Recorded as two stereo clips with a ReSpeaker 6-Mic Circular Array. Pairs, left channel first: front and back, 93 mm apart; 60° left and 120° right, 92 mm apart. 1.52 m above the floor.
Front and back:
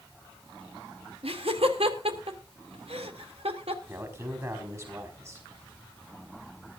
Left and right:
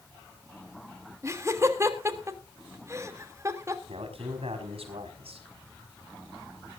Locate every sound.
1.2 s laughter: straight behind, 2.5 m
3.9 s a man speaking: 120° right, 5 m